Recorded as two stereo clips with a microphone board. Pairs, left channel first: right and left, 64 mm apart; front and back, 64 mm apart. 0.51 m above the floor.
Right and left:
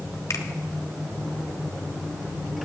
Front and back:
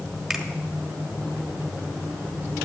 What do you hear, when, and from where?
0.3 s a finger snap: 95° right, 1.3 m